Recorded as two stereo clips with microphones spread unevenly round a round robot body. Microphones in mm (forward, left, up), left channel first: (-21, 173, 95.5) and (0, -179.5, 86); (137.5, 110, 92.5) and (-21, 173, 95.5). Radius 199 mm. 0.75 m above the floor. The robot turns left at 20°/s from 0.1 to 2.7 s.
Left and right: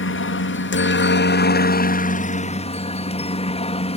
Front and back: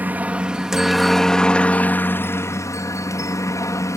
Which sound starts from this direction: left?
A helicopter, at 0.0 s.